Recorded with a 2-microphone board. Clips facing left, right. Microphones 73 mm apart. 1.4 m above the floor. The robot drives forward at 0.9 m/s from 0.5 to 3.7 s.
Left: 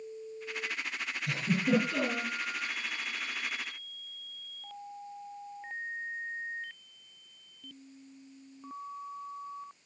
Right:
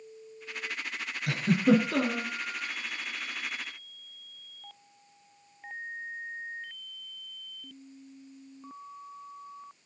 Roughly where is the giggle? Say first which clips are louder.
Right 6 dB; right.